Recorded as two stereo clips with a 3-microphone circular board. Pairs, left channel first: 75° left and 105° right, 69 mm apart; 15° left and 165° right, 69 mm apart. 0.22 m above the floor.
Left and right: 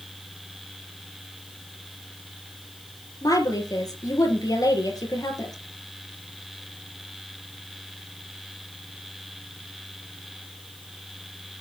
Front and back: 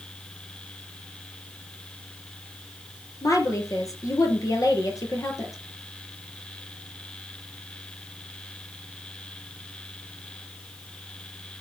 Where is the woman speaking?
50° left, 4.5 m.